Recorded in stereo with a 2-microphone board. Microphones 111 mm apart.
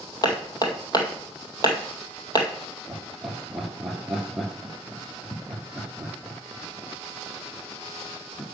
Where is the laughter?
Centre (ahead or behind), 2.5 m.